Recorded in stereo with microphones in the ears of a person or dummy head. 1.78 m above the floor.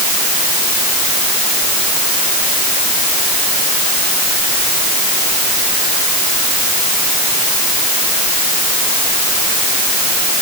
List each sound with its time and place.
Only background noise.